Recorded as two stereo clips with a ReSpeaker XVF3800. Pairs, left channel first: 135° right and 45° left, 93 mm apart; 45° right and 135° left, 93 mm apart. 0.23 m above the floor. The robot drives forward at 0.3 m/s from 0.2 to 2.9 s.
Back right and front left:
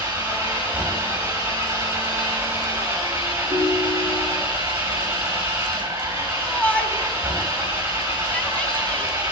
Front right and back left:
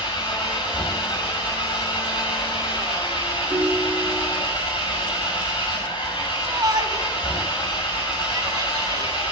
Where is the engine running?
15° right, 7.5 m.